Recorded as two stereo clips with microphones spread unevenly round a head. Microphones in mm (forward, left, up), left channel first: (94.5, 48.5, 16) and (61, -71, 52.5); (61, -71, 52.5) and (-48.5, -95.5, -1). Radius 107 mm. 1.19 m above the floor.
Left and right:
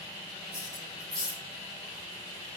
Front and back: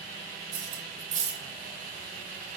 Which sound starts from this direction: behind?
Cutlery clinking, at 0.5 s.